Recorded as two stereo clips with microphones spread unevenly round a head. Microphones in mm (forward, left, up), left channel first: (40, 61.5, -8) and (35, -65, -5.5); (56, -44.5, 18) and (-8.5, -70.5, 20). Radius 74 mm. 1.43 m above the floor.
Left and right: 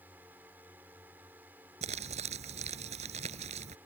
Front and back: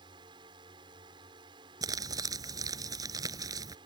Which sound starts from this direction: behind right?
Crumpling, at 1.8 s.